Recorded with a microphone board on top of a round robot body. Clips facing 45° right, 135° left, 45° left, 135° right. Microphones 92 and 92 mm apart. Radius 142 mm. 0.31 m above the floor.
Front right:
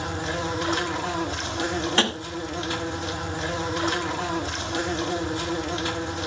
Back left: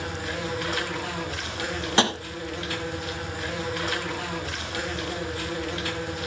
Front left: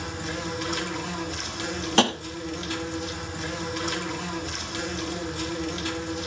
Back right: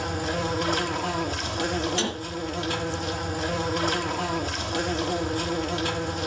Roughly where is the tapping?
Ahead left.